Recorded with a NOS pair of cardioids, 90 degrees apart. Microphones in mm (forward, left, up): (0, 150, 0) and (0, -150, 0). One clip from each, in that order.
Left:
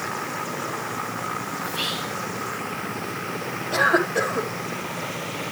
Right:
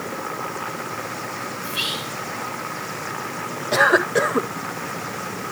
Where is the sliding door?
I don't hear a sliding door.